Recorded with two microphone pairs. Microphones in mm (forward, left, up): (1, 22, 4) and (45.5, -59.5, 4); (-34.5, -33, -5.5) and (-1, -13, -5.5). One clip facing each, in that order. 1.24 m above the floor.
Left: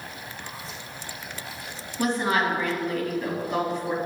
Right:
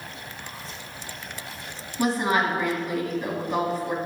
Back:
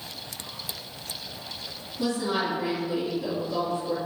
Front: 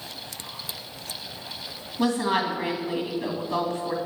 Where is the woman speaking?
25° left, 1.7 m.